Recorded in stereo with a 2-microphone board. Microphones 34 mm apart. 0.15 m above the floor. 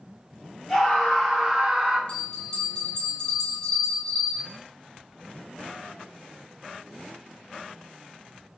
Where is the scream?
15° left (ahead or behind), 1.0 m; by 2.0 s 20° right (ahead or behind), 1.1 m.